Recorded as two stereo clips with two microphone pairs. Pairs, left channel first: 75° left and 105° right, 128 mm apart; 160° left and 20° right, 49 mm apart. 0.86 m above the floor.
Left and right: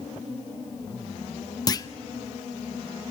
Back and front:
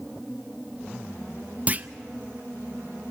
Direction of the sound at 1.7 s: 30° left.